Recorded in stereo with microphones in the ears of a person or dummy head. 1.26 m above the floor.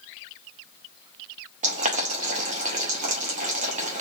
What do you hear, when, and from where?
1.6 s boiling: 30° right (ahead or behind), 0.7 m